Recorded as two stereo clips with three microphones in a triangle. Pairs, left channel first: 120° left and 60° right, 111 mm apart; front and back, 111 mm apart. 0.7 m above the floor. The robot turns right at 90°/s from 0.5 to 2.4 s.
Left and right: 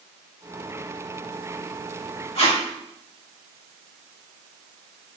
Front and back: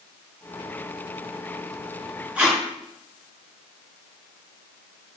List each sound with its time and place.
2.4 s tape being pulled: 100° left, 3.5 m; by 2.6 s 105° left, 3.5 m